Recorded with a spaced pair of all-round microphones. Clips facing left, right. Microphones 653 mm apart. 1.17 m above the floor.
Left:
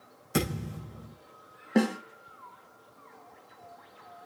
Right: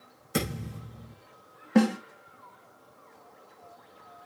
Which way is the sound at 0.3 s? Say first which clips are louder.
Left 1 dB; 5° left (ahead or behind).